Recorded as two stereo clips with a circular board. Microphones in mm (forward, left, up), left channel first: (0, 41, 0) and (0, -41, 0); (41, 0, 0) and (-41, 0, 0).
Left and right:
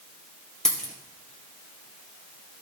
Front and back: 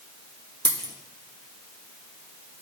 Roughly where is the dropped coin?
Behind.